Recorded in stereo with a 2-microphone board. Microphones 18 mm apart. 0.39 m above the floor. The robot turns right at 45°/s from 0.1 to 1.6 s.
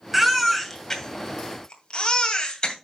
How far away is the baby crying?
About 2 m.